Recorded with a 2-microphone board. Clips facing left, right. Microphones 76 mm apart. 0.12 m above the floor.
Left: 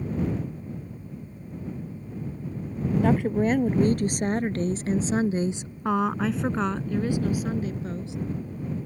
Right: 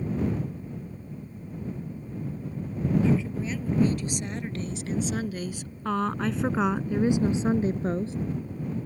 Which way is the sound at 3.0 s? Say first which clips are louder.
Left 4 dB; 60° left (ahead or behind).